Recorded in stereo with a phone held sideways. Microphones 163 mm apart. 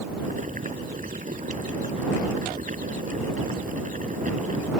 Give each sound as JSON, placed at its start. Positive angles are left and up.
{"t": 0.2, "sound": "boiling", "side_deg": -55}